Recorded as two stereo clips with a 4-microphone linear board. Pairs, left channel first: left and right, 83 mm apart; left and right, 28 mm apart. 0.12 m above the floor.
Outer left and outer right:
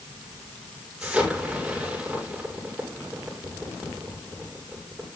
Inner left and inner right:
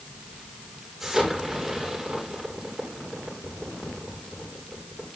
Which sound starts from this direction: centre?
An explosion, at 1.0 s.